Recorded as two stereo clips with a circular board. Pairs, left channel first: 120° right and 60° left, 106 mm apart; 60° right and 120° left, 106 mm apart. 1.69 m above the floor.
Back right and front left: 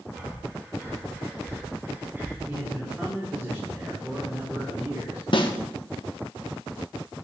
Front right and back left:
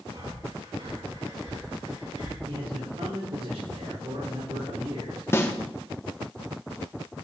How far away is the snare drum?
About 0.9 m.